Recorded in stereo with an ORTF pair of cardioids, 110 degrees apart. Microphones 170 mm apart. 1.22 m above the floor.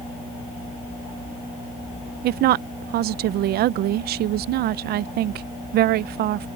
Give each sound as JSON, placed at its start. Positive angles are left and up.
{"t": 2.2, "sound": "a woman speaking", "azimuth_deg": -65}